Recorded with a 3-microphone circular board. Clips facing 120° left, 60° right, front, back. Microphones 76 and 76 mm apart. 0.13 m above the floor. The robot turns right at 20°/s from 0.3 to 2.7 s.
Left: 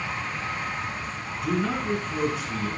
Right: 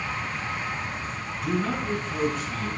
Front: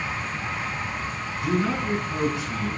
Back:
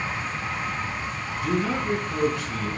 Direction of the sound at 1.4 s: 25° left.